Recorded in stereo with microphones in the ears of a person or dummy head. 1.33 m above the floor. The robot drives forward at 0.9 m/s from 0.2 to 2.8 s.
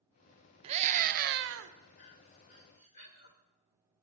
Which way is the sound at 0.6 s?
35° right (ahead or behind).